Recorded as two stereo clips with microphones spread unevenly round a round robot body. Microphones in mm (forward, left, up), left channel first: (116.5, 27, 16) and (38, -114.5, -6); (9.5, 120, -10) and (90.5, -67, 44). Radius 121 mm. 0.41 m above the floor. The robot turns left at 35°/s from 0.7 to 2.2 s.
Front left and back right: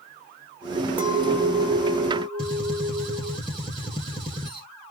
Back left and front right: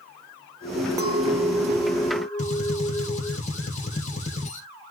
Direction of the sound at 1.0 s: 155° right.